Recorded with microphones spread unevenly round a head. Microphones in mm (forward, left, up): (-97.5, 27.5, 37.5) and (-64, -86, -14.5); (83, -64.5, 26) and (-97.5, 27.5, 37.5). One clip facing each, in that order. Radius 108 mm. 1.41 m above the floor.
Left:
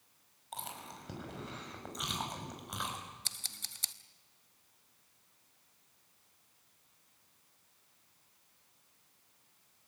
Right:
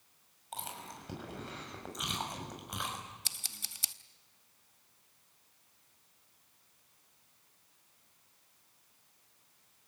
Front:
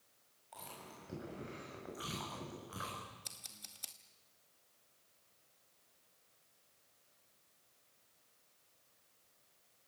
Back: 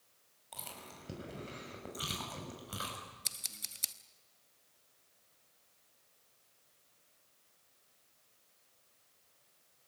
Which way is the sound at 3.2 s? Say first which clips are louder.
Right 1 dB, back 2 dB; 165° left.